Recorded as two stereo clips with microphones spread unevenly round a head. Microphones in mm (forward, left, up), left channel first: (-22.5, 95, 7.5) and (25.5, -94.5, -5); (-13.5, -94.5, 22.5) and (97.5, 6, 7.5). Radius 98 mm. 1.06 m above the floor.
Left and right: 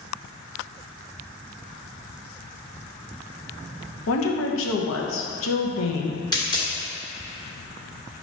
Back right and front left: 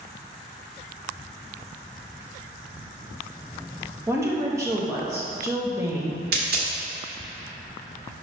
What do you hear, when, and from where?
4.1 s a woman speaking: 110° left, 0.9 m
6.3 s a dropped coin: 40° left, 1.2 m